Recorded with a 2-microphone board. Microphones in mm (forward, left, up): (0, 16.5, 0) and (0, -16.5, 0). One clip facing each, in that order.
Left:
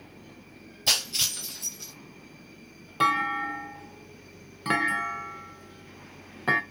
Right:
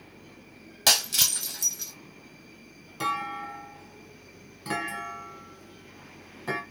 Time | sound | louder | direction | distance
0.9 | breaking glass | right 2 dB | 80° right | 1.0 m
3.0 | a clunk | left 6 dB | 35° left (ahead or behind) | 0.6 m